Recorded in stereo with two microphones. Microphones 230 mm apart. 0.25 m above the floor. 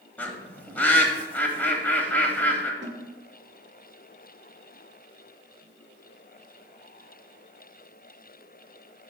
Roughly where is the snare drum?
Right.